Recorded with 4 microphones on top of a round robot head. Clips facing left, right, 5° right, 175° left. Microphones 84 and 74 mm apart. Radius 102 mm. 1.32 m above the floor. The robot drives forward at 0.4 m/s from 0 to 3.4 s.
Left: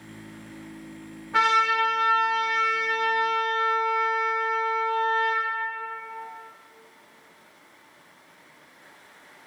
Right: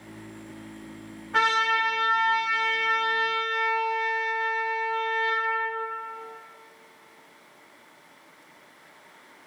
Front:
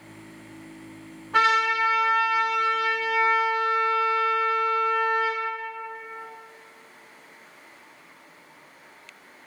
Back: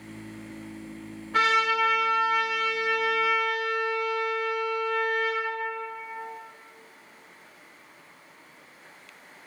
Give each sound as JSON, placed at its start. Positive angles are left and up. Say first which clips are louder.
{"t": 1.3, "sound": "a trumpet", "louder": "left 2 dB, front 2 dB", "azimuth_deg": 0, "distance_m": 1.4}